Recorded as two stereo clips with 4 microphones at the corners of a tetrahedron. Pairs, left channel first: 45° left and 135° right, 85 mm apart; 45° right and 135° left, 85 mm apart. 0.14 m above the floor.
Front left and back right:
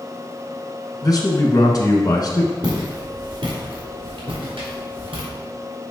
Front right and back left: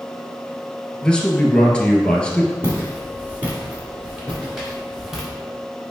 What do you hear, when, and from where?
1.0 s a man speaking: 30° left, 1.6 m
2.6 s footsteps: 165° right, 3.5 m; by 5.3 s 140° right, 4.5 m